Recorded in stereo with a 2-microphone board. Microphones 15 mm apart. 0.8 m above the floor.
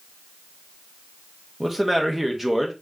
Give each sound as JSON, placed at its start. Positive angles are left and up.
{"t": 1.6, "sound": "a man speaking", "side_deg": -15, "distance_m": 1.0}